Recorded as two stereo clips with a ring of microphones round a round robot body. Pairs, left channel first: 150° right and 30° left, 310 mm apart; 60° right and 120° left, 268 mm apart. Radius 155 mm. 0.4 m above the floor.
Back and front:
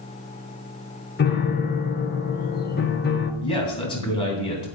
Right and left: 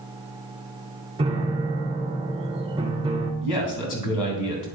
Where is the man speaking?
75° right, 3.5 m.